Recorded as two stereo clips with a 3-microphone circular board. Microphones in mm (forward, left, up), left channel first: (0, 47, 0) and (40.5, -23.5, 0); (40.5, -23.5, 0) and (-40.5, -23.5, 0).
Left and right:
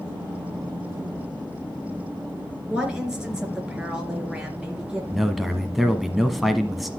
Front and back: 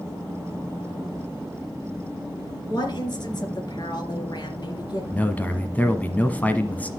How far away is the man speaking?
About 1.0 m.